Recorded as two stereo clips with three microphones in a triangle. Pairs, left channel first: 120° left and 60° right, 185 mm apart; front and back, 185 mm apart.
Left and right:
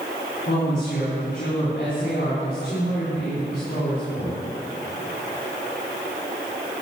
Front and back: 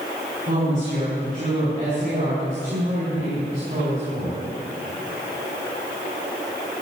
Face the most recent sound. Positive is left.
turn(degrees=140)